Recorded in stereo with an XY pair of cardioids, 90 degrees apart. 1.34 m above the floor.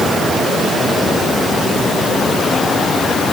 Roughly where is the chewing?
I don't hear chewing.